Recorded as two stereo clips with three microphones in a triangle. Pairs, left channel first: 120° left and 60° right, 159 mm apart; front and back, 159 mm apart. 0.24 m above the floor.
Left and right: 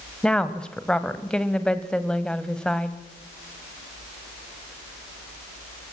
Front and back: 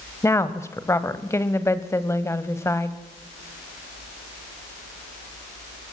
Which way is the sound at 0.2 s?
45° left.